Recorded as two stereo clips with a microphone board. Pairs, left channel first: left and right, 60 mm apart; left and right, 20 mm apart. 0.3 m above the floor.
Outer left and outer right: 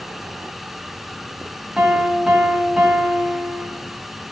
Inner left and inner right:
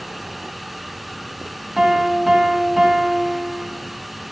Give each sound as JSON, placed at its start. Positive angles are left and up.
{"t": 1.8, "sound": "a piano", "side_deg": -15, "distance_m": 2.0}